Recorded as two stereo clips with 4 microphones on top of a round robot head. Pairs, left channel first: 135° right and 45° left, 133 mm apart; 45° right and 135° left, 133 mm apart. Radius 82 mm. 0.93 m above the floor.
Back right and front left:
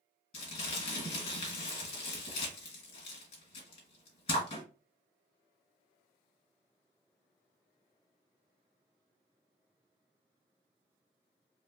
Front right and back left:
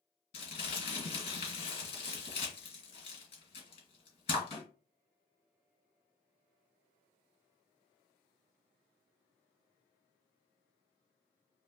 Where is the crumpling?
90° right, 2.5 m.